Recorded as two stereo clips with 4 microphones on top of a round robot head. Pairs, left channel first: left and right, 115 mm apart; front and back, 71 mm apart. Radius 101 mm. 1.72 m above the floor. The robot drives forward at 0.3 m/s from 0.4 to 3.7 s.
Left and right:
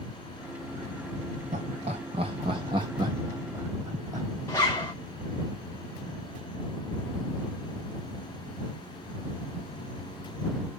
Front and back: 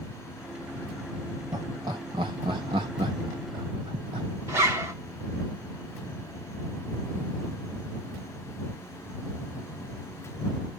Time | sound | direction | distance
1.5 | laughter | 130° right | 0.7 m
4.5 | a zipper | 160° left | 0.9 m